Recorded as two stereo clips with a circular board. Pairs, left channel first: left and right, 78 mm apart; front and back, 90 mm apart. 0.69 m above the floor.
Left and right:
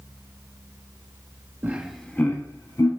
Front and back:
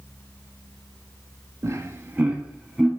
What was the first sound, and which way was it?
Laughter, 145° right.